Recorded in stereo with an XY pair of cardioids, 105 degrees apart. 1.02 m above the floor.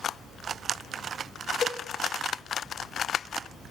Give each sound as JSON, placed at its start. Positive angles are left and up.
{"t": 1.6, "sound": "a cowbell", "azimuth_deg": 40, "distance_m": 5.0}